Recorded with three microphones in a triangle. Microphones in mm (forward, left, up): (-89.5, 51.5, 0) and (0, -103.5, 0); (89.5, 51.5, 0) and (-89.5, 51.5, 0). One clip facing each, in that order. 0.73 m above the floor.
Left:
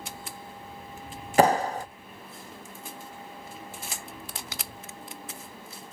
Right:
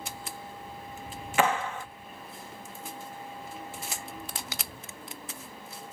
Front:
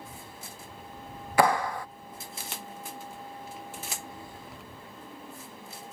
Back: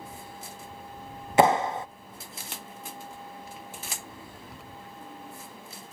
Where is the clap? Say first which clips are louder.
Left 6 dB, back 3 dB; 125° left.